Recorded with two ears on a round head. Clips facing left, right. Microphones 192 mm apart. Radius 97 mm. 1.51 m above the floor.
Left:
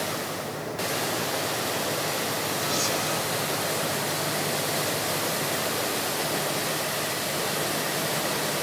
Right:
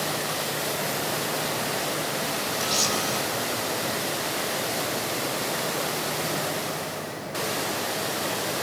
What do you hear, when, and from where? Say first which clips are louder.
2.6 s a camera shutter: even; 60° right (ahead or behind), 7.5 m